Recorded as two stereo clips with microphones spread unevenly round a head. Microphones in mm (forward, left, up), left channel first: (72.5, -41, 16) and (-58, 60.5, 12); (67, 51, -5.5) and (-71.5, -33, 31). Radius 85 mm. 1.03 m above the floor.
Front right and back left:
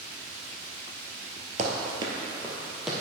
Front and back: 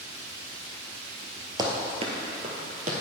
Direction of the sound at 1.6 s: 170° left.